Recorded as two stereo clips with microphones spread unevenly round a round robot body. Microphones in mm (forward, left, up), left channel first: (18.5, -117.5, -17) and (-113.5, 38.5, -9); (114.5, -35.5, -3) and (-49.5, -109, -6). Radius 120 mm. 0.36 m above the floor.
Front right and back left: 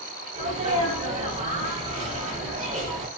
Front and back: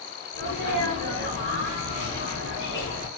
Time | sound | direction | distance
0.3 | a sneeze | straight behind | 1.7 m